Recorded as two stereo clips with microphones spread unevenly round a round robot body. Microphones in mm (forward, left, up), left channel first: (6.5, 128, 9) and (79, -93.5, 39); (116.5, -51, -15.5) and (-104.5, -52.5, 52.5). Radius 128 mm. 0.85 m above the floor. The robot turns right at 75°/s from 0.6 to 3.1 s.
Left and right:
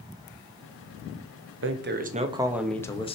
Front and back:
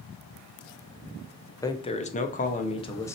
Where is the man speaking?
55° right, 1.2 m; by 3.1 s 60° left, 1.2 m.